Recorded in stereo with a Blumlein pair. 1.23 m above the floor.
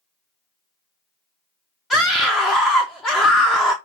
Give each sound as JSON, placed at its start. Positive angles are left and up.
{"t": 1.9, "sound": "a scream", "azimuth_deg": 10, "distance_m": 0.6}